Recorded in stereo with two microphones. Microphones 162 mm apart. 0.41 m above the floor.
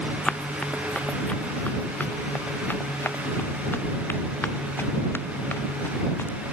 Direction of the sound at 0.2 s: 5° left (ahead or behind).